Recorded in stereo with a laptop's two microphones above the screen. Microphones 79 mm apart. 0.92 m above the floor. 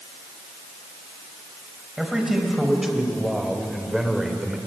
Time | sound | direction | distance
2.0 | a man speaking | 5° right (ahead or behind) | 4.5 m